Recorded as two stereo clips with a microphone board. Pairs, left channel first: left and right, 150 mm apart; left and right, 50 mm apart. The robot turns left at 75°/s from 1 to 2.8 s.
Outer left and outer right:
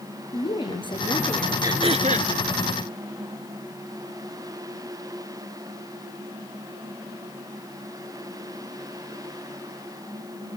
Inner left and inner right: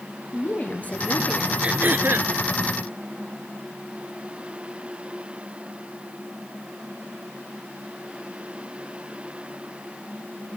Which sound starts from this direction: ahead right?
Throat clearing, at 1.6 s.